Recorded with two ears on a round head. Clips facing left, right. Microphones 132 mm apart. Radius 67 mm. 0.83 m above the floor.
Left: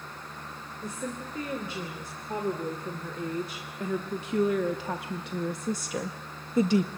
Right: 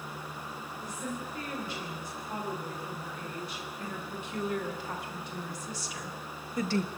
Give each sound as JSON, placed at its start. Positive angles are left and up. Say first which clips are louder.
{"t": 0.8, "sound": "a woman speaking", "louder": "left 3 dB", "side_deg": 80, "distance_m": 3.5}